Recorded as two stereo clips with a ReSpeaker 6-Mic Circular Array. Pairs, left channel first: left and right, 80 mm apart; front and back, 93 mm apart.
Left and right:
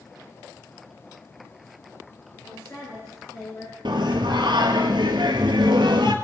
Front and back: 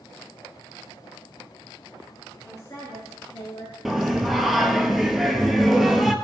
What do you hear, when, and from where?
2.5 s a woman speaking: 45° left, 2 m; by 3.8 s 50° left, 3 m
3.9 s singing: 90° right, 0.8 m